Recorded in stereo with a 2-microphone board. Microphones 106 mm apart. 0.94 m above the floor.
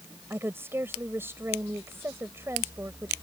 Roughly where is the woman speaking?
Right.